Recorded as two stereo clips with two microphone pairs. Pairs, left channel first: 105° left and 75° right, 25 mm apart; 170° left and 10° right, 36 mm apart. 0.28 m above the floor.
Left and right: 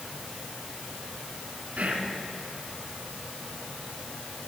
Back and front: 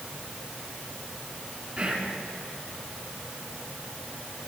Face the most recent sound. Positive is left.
turn(degrees=-55)